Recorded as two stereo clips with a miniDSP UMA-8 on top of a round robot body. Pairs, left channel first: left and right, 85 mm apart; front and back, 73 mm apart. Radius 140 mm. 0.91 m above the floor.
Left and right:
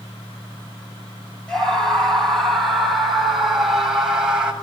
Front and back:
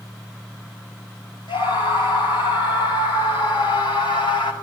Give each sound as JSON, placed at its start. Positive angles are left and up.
{"t": 1.5, "sound": "a scream", "azimuth_deg": 5, "distance_m": 9.0}